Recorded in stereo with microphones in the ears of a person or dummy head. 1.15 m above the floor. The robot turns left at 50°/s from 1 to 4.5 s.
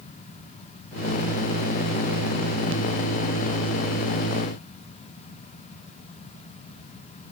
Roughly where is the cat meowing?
No cat meowing in this recording.